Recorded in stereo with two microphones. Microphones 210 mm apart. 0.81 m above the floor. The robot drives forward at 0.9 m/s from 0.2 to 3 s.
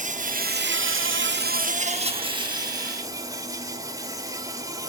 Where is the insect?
35° right (ahead or behind), 0.9 m; by 4.9 s 15° right (ahead or behind), 1.9 m.